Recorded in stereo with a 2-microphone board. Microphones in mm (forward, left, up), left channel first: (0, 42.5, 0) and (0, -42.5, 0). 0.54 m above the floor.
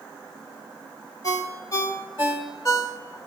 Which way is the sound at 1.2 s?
35° left (ahead or behind).